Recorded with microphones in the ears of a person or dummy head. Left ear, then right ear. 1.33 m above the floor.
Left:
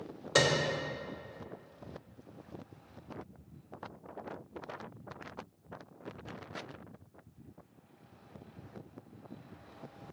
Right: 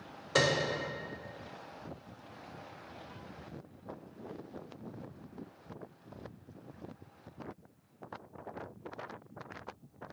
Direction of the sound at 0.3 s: 5° left (ahead or behind).